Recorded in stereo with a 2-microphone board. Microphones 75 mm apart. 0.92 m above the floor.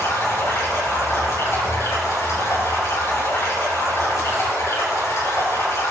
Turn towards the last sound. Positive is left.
turn(degrees=40)  # may be behind; listen again after turning